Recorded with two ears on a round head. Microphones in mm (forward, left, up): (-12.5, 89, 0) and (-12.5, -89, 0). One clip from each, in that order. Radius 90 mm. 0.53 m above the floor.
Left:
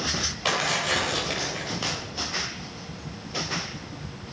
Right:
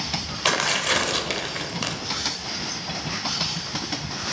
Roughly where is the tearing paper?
Right.